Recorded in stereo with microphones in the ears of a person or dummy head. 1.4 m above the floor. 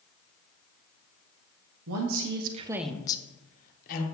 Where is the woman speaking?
75° right (ahead or behind), 0.9 m; by 4.0 s 50° left (ahead or behind), 1.3 m.